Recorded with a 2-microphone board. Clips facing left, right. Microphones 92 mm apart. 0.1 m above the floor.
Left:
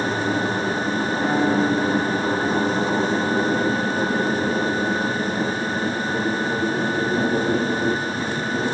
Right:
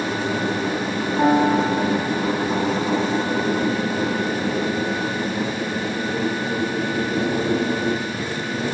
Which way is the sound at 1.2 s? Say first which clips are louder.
Right 4 dB; 80° right.